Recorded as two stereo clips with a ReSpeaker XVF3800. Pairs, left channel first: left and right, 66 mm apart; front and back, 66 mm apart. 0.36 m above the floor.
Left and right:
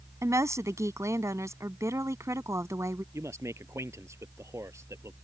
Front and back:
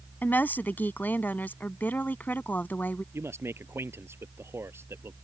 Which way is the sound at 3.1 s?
130° right.